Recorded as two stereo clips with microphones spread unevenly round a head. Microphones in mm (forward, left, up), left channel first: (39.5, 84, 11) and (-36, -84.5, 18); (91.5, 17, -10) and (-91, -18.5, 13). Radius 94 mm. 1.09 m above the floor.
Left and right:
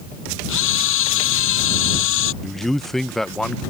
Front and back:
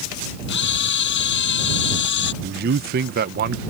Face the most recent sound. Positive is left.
turn(degrees=155)